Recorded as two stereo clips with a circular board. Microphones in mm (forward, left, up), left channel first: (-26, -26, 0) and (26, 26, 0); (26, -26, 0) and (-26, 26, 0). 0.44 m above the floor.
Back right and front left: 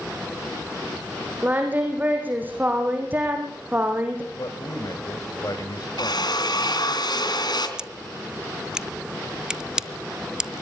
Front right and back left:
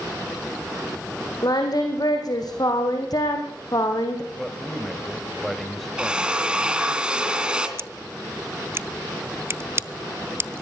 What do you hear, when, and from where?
1.4 s singing: 20° right, 4 m
4.3 s a man speaking: 135° right, 2.5 m
6.0 s a drill: 150° right, 3 m
7.8 s scissors: 120° left, 0.6 m